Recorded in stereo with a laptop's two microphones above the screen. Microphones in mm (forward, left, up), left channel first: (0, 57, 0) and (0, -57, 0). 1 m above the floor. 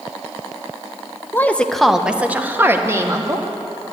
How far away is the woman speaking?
About 0.7 m.